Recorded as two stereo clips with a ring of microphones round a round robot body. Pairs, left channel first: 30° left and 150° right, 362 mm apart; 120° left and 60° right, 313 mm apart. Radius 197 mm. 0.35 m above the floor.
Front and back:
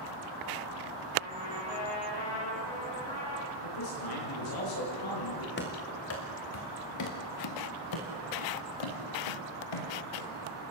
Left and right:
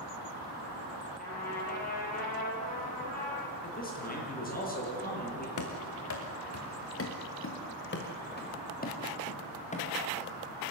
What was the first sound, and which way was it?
A trumpet, 55° left.